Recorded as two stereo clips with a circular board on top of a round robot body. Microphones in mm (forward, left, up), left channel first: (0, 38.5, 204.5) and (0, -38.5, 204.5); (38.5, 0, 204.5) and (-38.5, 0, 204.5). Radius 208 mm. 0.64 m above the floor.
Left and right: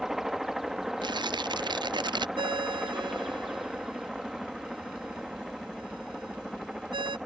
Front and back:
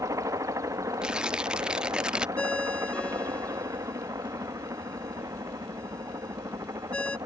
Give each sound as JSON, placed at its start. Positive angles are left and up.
{"t": 0.0, "sound": "a helicopter", "azimuth_deg": -175}
{"t": 1.0, "sound": "tearing paper", "azimuth_deg": -100}
{"t": 2.4, "sound": "a ringtone", "azimuth_deg": -75}